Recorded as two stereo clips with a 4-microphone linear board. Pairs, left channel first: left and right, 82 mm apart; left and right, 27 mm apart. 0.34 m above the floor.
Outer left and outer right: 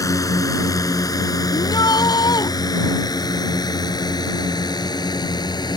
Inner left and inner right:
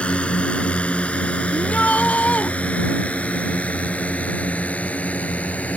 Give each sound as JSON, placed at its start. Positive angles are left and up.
{"t": 0.0, "sound": "a drone", "side_deg": 45}
{"t": 1.5, "sound": "a shout", "side_deg": 60}